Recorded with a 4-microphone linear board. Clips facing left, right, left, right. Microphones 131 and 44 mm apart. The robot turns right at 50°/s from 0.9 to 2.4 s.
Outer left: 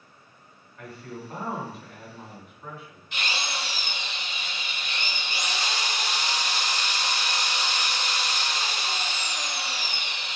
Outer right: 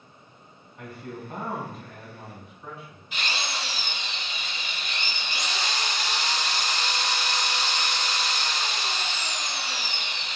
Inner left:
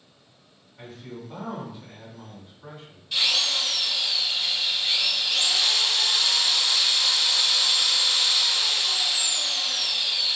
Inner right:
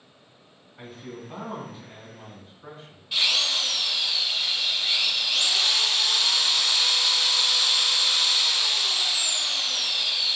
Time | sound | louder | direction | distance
0.8 | a man speaking | outer right 1 dB, even | 25° right | 1.8 m
3.1 | a drill | even, even | 10° right (ahead or behind) | 1.4 m